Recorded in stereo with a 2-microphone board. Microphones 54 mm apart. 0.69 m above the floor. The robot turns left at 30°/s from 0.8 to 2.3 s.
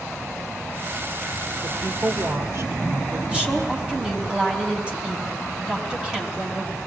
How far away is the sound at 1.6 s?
About 2.5 m.